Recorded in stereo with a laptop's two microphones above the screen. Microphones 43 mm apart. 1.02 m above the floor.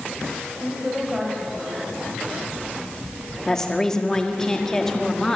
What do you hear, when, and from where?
0.6 s a woman speaking: 5° right (ahead or behind), 6.5 m
3.5 s a woman speaking: 15° left (ahead or behind), 1.8 m